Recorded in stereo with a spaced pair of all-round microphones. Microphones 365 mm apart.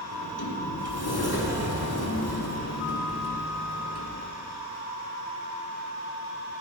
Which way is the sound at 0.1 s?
85° left.